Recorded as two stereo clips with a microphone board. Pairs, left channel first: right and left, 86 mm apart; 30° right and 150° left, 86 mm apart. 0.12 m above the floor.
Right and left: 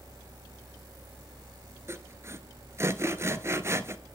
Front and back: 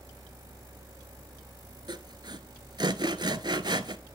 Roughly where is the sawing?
Behind left.